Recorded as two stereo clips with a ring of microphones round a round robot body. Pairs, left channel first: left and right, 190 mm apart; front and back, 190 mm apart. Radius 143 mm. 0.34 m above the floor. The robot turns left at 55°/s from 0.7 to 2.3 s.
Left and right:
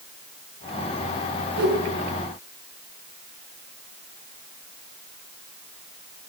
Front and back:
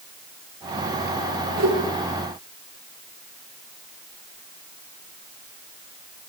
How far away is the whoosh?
About 5.5 m.